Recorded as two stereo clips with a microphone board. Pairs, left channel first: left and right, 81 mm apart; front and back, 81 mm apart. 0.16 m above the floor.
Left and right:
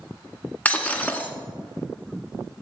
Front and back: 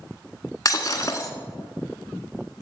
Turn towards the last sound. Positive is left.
turn(degrees=25)